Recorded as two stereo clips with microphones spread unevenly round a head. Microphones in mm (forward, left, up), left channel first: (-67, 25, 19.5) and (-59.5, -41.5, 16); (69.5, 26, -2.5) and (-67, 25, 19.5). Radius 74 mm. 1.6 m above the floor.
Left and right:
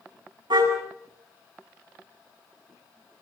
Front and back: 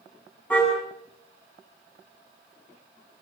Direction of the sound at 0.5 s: 80° right.